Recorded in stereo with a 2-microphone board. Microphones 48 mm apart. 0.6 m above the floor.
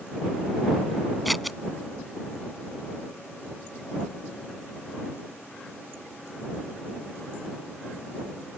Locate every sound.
1.2 s scissors: centre (ahead or behind)